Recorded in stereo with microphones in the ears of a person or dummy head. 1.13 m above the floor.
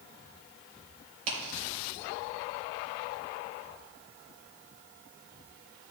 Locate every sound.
1.3 s a crack: 45° right (ahead or behind), 3 m